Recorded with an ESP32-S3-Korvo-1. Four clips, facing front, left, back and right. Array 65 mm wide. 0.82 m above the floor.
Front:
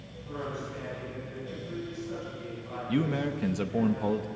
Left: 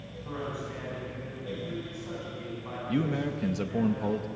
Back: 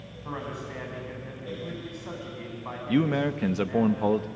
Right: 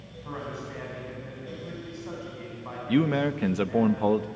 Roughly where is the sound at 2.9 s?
Behind right.